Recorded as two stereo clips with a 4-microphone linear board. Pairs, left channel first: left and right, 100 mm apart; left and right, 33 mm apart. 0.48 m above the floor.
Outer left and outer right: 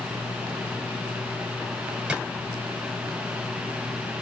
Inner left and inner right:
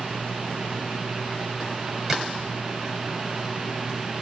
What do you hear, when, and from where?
2.1 s a drawer: 10° right (ahead or behind), 0.8 m